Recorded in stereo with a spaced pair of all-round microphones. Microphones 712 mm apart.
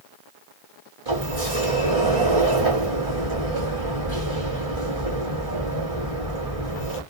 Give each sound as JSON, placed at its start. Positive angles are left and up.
{"t": 1.1, "sound": "a sliding door", "side_deg": -50, "distance_m": 2.5}